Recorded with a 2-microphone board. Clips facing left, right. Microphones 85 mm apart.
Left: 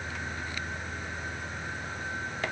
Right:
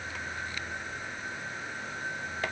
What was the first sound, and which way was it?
Only background noise.